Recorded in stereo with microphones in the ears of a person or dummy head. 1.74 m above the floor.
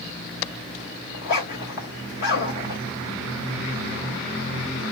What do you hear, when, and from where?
1.1 s a zipper: 60° left (ahead or behind), 2 m